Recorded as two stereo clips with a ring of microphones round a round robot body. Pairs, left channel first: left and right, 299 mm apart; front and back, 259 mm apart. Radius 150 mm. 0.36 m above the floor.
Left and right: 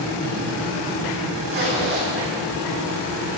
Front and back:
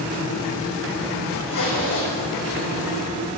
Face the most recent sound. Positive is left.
turn(degrees=-30)